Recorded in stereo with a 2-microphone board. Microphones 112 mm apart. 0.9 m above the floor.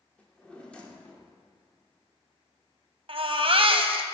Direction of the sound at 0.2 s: 10° left (ahead or behind).